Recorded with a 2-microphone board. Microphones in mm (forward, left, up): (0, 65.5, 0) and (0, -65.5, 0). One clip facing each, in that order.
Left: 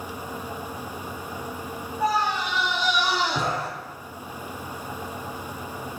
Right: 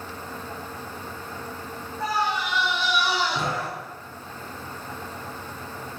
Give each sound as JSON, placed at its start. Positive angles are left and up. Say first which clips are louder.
{"t": 2.0, "sound": "a scream", "louder": "left 2 dB", "side_deg": 15, "distance_m": 8.0}